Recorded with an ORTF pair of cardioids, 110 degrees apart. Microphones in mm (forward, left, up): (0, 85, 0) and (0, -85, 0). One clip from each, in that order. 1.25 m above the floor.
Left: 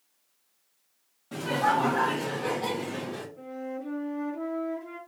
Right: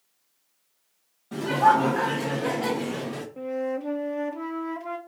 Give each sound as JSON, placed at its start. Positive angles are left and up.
{"t": 1.3, "sound": "laughter", "azimuth_deg": 0, "distance_m": 1.0}
{"t": 3.4, "sound": "a flute", "azimuth_deg": -65, "distance_m": 0.7}